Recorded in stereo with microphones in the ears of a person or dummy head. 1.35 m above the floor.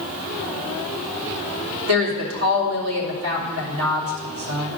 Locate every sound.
1.9 s a woman speaking: 85° right, 3 m